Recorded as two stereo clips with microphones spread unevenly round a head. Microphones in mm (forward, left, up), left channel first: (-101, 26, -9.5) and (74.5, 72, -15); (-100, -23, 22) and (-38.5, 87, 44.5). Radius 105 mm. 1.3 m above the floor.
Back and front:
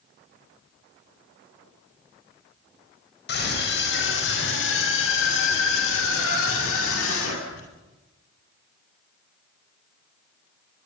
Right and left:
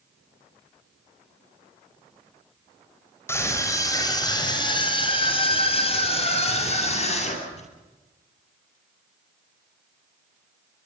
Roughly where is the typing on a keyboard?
I don't hear typing on a keyboard.